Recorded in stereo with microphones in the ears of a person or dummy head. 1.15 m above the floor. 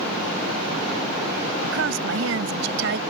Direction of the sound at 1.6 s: 85° right.